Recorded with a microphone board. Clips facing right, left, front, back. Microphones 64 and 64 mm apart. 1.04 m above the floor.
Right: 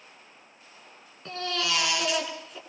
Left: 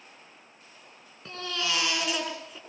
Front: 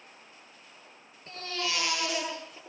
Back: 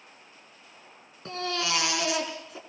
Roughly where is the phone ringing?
No phone ringing in this recording.